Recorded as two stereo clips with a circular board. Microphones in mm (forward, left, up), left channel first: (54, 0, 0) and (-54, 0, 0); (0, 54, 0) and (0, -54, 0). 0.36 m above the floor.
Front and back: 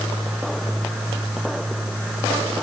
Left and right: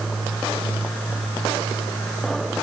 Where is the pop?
I don't hear a pop.